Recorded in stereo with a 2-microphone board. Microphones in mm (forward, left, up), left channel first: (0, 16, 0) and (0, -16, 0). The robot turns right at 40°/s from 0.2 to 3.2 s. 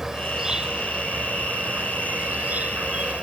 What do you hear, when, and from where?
0.0 s an insect: 165° right; by 3.2 s 45° right